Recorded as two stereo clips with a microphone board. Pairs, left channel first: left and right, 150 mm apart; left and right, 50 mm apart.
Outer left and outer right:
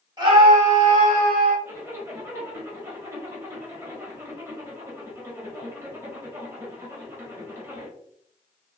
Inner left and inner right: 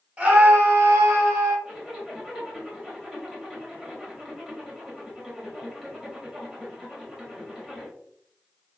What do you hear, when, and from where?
0.2 s a scream: 30° right (ahead or behind), 1.5 m; by 1.6 s 80° right, 2 m
1.6 s a zipper: 20° right (ahead or behind), 1.2 m